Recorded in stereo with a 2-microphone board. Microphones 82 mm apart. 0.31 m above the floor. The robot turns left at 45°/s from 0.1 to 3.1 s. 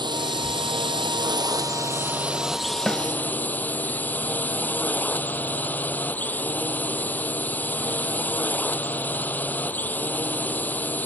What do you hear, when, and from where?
0.0 s a drone: 65° right; by 11.1 s 160° left
2.9 s a snare drum: centre (ahead or behind); by 3.0 s 5° right (ahead or behind)